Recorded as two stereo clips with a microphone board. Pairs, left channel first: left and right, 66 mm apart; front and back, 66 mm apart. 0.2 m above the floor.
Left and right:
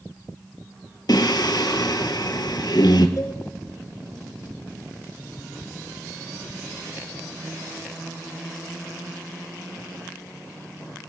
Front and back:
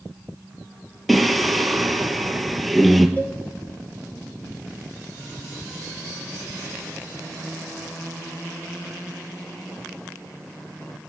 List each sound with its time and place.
1.1 s singing: 90° left, 1.3 m
3.2 s a cowbell: 65° left, 2 m